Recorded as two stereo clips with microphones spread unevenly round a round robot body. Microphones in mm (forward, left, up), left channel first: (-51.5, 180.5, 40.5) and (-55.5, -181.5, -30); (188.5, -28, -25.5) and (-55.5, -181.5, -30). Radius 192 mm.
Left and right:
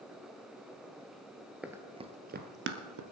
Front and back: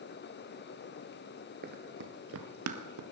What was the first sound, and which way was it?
Running footsteps, 170° left.